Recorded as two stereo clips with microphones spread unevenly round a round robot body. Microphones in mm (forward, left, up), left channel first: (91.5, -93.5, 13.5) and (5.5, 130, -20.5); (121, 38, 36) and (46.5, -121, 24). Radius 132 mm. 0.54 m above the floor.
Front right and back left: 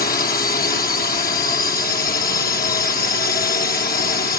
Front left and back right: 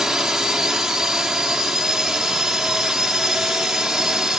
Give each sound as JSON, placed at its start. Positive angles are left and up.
{"t": 0.0, "sound": "a drone", "azimuth_deg": -35}